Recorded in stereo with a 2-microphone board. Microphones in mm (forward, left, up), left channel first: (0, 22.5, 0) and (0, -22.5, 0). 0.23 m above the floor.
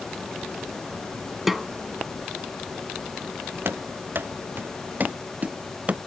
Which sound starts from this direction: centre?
A snare drum, at 1.5 s.